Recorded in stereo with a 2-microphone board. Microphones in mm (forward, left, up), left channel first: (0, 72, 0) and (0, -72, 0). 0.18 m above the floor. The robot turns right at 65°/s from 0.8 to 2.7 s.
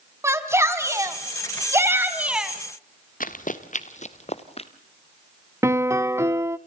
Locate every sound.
0.2 s a shout: 20° right (ahead or behind), 1.5 m; by 2.5 s 5° right (ahead or behind), 1.5 m
3.2 s running footsteps: 75° left (ahead or behind), 1.3 m; by 4.7 s 45° left (ahead or behind), 1.5 m
5.6 s a piano: 20° right (ahead or behind), 0.5 m